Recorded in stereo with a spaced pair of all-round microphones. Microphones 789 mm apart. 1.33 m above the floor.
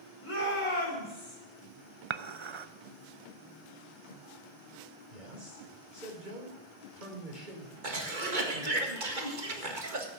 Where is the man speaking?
85° right, 4 m.